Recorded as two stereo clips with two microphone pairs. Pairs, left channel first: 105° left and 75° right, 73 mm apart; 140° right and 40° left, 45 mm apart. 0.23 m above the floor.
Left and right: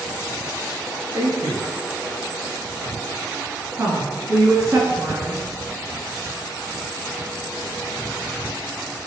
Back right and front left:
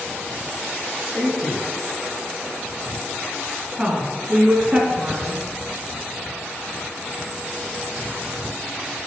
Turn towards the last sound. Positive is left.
turn(degrees=-30)